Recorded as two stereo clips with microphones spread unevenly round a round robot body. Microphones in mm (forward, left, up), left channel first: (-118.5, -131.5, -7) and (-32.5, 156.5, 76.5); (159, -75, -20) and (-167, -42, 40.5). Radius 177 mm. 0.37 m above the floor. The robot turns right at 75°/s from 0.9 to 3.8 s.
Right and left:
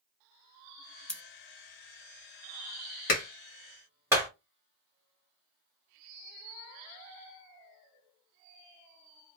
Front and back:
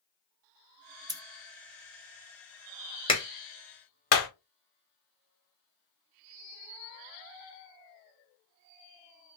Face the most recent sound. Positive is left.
turn(degrees=-15)